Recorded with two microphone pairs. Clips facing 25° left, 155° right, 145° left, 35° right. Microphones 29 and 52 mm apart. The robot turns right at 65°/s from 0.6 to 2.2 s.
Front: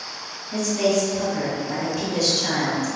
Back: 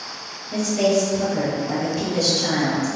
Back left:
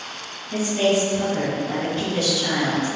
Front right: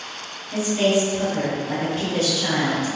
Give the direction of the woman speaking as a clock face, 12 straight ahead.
6 o'clock.